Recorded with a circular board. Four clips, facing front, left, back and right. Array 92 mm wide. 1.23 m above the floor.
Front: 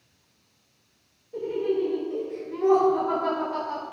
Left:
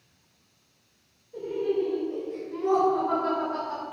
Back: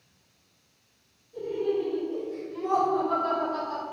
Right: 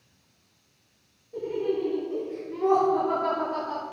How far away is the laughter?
About 4.5 m.